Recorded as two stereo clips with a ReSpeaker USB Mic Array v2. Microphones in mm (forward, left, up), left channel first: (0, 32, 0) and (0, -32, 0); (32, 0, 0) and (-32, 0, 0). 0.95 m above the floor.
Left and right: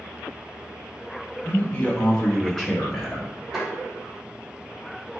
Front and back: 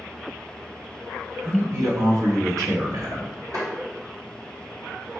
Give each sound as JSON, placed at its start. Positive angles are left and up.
{"t": 1.4, "sound": "a man speaking", "azimuth_deg": 145, "distance_m": 0.8}
{"t": 3.5, "sound": "tapping", "azimuth_deg": -175, "distance_m": 2.0}